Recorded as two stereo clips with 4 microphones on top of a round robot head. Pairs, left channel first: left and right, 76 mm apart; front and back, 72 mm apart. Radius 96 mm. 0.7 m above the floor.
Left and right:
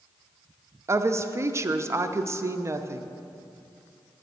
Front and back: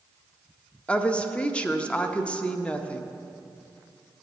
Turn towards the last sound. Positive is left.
turn(degrees=-65)